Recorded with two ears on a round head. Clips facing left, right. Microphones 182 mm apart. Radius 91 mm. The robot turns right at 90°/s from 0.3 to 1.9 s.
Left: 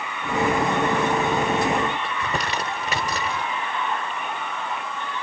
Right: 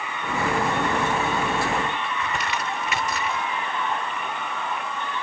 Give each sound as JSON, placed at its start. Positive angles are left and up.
{"t": 2.0, "sound": "crumpling", "side_deg": 30}